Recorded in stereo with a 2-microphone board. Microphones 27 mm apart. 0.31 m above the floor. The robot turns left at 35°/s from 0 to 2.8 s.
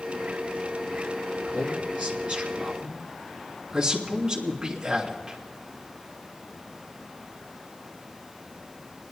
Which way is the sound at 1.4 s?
70° right (ahead or behind).